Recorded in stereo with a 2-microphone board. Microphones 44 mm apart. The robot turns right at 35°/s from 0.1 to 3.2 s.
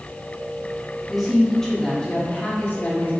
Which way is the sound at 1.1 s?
5° right.